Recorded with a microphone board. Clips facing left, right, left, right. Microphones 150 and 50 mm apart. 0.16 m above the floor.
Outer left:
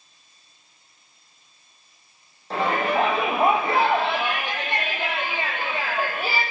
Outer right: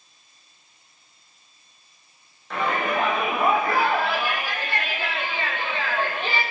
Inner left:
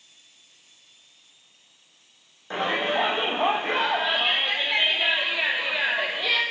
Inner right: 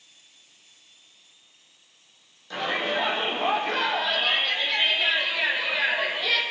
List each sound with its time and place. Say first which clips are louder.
2.5 s a shout: outer left 2 dB, inner left 2 dB; 35° left (ahead or behind), 8.5 m; by 6.4 s 5° left (ahead or behind), 7.5 m